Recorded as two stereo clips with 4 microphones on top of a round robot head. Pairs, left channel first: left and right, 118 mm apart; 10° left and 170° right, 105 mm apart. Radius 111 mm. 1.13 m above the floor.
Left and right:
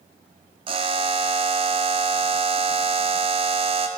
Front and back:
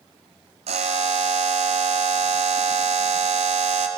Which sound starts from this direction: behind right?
A buzzer, at 0.7 s.